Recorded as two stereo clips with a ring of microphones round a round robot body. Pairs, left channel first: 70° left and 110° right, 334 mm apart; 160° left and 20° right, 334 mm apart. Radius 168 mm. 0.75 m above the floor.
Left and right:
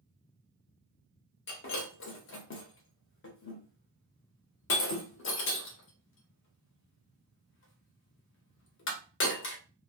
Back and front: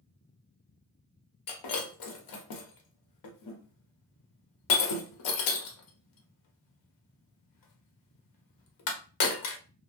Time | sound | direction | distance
1.5 | breaking glass | 125° left | 0.7 m